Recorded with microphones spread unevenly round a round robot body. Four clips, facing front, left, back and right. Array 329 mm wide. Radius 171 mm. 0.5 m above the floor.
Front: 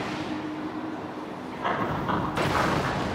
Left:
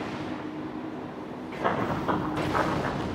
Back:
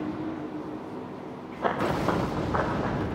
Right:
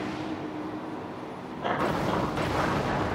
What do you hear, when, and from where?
1.6 s running footsteps: 150° left, 6 m; by 3.0 s 140° left, 4 m